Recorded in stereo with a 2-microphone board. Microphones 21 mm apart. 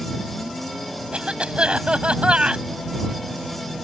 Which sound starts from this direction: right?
A cough, at 1.1 s.